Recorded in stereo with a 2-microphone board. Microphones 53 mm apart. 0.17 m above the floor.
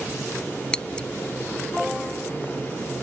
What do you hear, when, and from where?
0.7 s scissors: 15° left (ahead or behind)